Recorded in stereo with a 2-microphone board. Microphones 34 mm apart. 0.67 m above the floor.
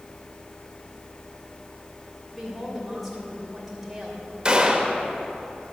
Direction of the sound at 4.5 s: 20° right (ahead or behind).